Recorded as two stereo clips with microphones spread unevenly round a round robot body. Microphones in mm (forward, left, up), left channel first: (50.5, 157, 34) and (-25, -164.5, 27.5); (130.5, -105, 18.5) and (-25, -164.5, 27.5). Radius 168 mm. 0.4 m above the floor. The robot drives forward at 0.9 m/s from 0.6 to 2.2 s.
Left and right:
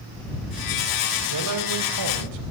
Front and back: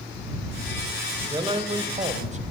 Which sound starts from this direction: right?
A man speaking, at 1.3 s.